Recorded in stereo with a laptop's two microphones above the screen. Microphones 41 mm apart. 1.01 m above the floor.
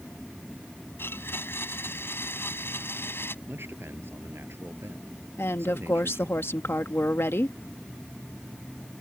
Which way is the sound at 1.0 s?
70° left (ahead or behind).